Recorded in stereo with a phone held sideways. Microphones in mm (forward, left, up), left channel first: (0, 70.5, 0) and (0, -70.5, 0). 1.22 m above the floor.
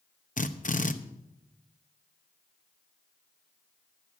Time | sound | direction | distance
0.4 | a drill | 60° left (ahead or behind) | 0.8 m